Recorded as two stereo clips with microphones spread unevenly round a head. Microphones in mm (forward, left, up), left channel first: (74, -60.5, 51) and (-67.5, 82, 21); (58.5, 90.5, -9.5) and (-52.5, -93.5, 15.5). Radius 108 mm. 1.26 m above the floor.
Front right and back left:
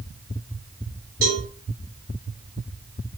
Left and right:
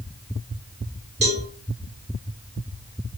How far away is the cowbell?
About 0.8 m.